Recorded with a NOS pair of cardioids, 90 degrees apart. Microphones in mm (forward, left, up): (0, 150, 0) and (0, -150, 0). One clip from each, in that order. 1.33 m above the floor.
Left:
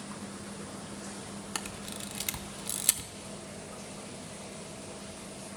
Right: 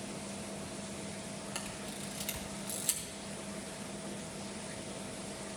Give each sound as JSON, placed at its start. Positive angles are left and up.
{"t": 1.6, "sound": "a camera shutter", "azimuth_deg": 45, "distance_m": 0.8}